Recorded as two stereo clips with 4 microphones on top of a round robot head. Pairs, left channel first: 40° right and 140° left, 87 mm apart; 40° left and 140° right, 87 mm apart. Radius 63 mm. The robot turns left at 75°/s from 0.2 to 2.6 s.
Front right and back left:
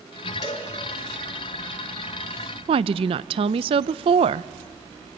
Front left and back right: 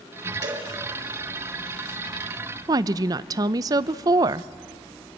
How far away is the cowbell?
About 6 m.